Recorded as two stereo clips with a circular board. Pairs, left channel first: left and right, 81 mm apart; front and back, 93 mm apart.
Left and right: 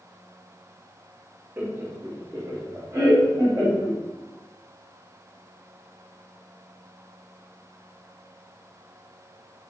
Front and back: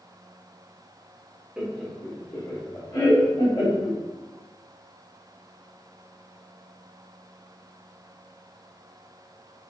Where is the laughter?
110° right, 0.6 m; by 4.0 s 35° right, 1.5 m.